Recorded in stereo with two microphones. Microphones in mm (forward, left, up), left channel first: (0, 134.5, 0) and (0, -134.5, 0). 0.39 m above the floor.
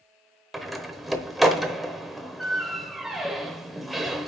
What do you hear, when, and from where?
0.5 s a door slam: centre (ahead or behind), 0.9 m